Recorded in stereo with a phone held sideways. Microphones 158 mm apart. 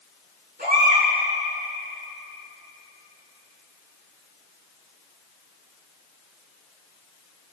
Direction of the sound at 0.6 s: 85° right.